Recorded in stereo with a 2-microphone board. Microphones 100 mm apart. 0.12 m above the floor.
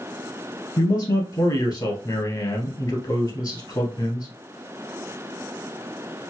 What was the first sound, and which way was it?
A man speaking, 40° left (ahead or behind).